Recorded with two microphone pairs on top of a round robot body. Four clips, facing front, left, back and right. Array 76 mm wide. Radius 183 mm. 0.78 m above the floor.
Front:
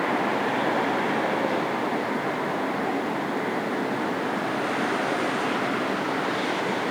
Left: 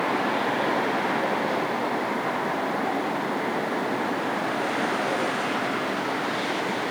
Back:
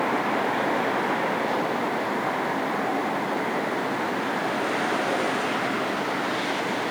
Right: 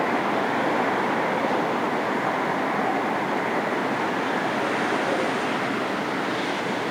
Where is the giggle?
No giggle in this recording.